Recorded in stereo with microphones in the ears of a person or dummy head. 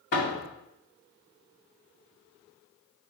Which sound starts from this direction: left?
A door slam, at 0.1 s.